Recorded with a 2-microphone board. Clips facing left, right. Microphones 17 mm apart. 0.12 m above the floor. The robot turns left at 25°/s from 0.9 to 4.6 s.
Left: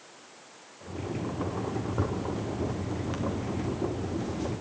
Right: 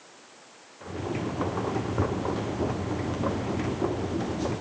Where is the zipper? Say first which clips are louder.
Right 3 dB; 165° right, 2.5 m; by 4.5 s 130° left, 2.5 m.